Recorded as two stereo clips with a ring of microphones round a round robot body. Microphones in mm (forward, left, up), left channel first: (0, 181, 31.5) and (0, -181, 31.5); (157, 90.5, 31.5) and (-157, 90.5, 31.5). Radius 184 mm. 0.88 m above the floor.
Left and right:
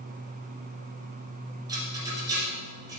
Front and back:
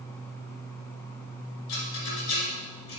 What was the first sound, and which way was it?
A rattle, 10° right.